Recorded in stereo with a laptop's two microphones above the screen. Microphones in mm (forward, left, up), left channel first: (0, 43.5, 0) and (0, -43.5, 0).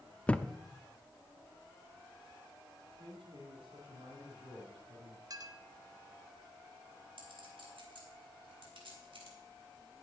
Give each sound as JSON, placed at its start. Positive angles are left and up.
{"t": 0.3, "sound": "a thud", "side_deg": 15, "distance_m": 0.5}
{"t": 2.9, "sound": "a man speaking", "side_deg": -70, "distance_m": 3.5}
{"t": 5.3, "sound": "a clink", "side_deg": -45, "distance_m": 0.6}
{"t": 7.2, "sound": "a clink", "side_deg": -85, "distance_m": 3.0}